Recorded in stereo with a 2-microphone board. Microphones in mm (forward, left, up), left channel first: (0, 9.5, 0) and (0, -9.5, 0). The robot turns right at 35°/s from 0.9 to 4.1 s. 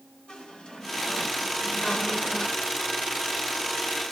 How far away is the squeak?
About 2 m.